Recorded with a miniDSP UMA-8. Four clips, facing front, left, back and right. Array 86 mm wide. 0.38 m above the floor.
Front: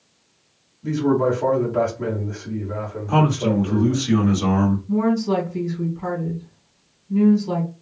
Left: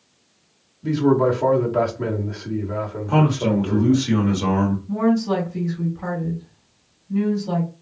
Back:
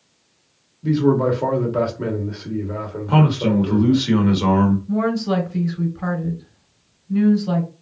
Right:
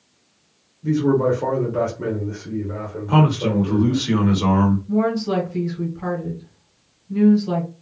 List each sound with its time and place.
0.8 s a man speaking: 145° left, 1.0 m
3.1 s a man speaking: 170° right, 1.0 m
4.9 s a woman speaking: 175° right, 1.8 m